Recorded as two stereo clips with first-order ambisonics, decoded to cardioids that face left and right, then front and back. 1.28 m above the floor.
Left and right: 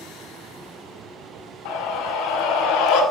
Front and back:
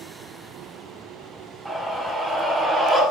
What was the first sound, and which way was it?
A scream, 90° left.